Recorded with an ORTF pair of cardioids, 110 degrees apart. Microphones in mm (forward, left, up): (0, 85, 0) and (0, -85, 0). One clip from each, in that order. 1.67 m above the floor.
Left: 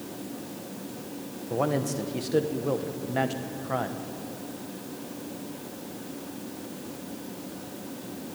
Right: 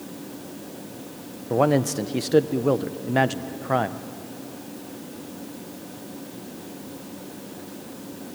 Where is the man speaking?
35° right, 1.2 m.